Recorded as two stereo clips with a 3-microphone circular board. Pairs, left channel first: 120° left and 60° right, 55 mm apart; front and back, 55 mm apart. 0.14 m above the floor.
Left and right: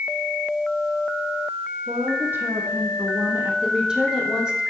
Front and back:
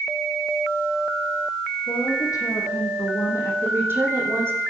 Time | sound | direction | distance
1.9 | a woman speaking | 10° right | 6.5 m
3.6 | a woman speaking | 135° right | 6 m